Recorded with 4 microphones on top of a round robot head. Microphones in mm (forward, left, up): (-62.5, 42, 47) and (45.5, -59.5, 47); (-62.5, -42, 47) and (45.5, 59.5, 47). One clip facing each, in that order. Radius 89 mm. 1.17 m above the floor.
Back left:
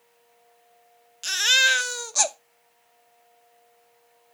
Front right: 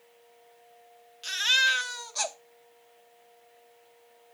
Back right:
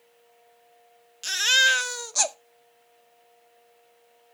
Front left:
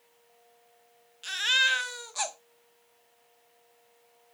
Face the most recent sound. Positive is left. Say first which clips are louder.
# back left 4 dB, back right 5 dB
turn(degrees=175)